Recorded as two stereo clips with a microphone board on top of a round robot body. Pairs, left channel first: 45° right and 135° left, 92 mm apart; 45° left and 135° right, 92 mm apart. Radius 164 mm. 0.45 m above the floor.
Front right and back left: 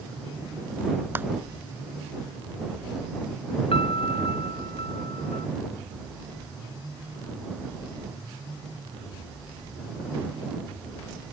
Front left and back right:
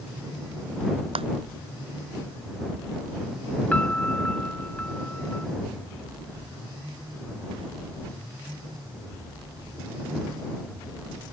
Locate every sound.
1.1 s a clap: 155° right
3.7 s a piano: 30° right